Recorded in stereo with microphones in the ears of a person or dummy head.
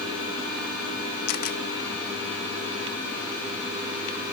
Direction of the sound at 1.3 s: 50° left (ahead or behind).